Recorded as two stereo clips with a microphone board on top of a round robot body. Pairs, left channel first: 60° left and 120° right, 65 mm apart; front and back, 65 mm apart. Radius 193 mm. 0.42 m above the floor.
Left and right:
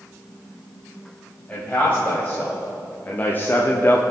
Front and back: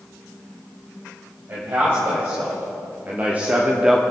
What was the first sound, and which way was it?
A man speaking, 125° left.